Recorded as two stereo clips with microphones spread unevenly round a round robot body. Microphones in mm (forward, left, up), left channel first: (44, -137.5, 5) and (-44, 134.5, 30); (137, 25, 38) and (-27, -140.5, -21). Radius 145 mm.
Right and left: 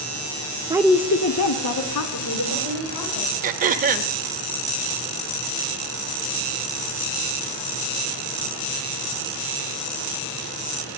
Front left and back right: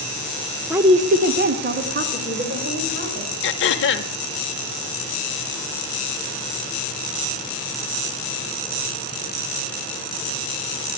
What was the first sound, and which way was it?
A woman speaking, 170° left.